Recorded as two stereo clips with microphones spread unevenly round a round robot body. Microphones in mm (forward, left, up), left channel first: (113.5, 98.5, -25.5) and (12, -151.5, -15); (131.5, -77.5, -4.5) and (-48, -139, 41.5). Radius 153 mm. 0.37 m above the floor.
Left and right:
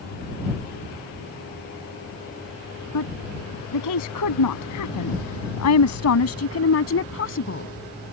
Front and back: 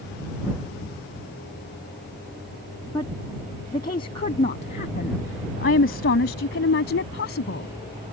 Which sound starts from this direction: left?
A woman speaking, at 2.9 s.